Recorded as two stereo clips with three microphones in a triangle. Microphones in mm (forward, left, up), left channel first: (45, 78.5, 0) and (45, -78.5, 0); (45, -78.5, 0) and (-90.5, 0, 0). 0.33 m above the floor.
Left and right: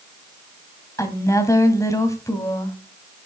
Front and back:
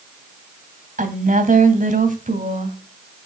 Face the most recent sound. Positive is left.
turn(degrees=155)